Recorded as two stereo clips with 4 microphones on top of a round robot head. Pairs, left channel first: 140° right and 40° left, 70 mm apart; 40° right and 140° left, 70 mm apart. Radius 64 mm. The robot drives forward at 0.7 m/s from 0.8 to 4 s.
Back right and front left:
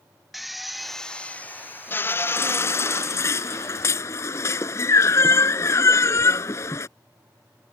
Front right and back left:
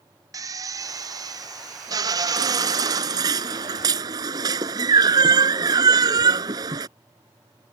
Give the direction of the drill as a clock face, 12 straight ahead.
8 o'clock.